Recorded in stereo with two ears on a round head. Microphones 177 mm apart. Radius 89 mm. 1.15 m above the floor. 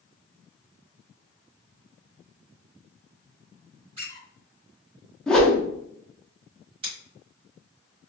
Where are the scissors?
30° right (ahead or behind), 1.6 m.